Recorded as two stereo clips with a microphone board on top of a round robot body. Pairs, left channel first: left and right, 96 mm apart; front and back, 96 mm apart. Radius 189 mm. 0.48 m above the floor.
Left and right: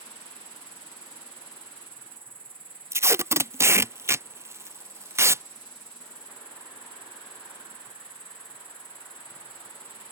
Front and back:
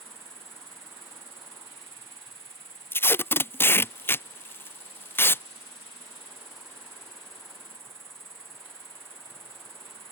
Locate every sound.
0.0 s an insect: 115° right
2.9 s tape being pulled: 50° right